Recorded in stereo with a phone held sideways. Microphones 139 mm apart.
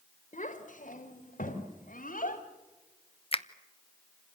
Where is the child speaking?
65° left (ahead or behind), 3 m; by 2.4 s 75° left (ahead or behind), 5.5 m.